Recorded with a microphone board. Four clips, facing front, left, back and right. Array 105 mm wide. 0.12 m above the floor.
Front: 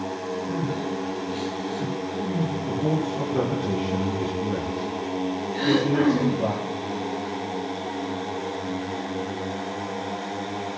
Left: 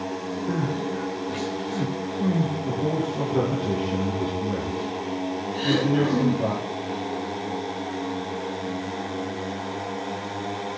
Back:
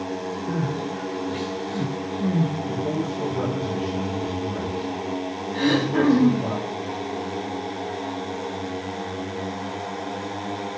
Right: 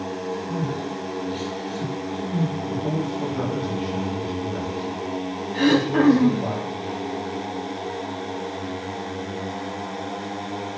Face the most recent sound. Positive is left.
turn(degrees=-105)